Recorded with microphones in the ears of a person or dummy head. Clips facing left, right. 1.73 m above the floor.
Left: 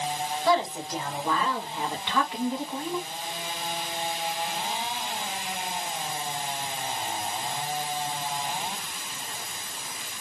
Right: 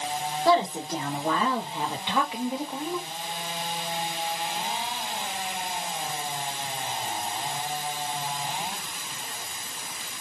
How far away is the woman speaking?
About 2.0 m.